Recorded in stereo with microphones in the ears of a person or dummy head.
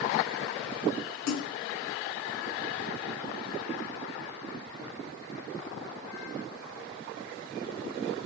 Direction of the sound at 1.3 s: 85° left.